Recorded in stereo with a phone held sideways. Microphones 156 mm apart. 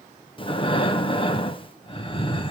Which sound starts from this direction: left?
Breathing, at 0.4 s.